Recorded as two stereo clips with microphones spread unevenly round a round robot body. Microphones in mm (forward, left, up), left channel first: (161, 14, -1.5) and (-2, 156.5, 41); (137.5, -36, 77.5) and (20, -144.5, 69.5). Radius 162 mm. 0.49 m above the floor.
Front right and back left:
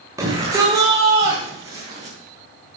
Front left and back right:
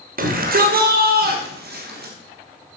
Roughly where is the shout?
Behind right.